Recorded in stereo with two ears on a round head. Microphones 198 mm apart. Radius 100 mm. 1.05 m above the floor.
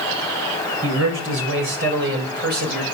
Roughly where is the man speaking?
Right.